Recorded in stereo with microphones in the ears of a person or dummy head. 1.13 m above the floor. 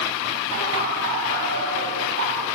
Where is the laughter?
70° right (ahead or behind), 7.5 m.